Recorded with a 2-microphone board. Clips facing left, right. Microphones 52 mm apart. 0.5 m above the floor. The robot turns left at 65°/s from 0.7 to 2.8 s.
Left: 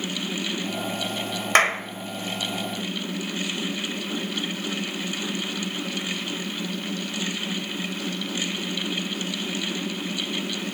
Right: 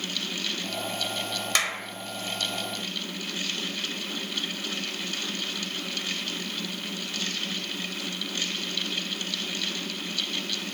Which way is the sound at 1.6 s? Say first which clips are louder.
Left 10 dB; 45° left (ahead or behind).